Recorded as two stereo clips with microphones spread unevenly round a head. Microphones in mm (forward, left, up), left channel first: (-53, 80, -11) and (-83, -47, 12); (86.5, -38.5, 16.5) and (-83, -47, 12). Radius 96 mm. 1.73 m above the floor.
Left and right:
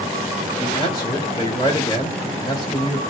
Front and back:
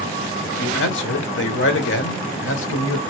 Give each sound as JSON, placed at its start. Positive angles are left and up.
{"t": 0.4, "sound": "a man speaking", "azimuth_deg": 5, "distance_m": 0.8}